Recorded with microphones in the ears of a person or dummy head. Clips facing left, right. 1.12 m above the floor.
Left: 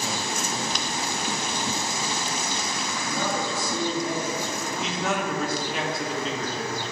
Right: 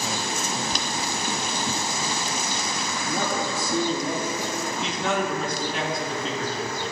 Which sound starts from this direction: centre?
A man speaking, at 4.7 s.